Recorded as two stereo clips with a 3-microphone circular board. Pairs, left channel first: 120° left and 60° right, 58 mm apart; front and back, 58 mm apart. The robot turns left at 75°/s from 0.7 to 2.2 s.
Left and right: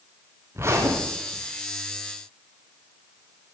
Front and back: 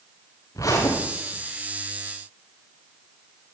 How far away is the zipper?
About 9.5 m.